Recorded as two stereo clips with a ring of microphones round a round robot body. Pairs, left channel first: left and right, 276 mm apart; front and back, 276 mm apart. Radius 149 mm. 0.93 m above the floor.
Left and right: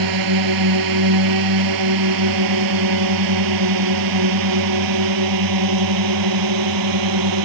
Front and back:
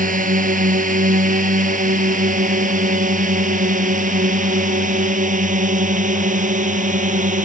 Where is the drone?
120° right; by 7.5 s 115° right.